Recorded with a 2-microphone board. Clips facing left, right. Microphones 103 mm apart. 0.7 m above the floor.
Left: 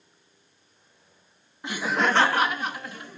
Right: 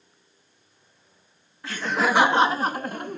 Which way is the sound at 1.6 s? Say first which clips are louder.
Right 1 dB; 20° left (ahead or behind).